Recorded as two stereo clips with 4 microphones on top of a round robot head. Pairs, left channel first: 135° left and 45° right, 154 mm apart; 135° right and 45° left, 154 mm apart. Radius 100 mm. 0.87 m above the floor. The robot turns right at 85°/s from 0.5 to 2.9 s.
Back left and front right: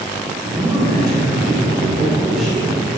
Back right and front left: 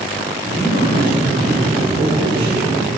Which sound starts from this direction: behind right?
A man speaking, at 0.5 s.